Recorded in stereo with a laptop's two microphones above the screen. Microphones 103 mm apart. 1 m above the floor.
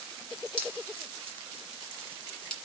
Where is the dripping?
10° left (ahead or behind), 2 m.